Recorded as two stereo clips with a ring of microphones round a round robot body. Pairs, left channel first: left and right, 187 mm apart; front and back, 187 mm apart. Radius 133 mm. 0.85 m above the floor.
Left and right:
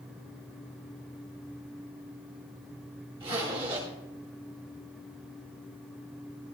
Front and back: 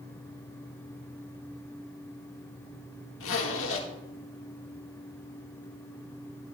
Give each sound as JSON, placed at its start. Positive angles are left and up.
{"t": 3.2, "sound": "a zipper", "azimuth_deg": -20, "distance_m": 1.8}